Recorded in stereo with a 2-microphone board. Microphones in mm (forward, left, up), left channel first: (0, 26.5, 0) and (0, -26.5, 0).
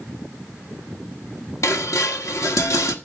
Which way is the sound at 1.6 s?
65° left (ahead or behind).